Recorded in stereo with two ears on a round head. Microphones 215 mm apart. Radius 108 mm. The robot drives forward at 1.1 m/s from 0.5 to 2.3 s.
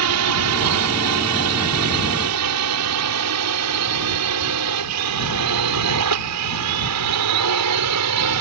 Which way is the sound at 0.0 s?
70° right (ahead or behind).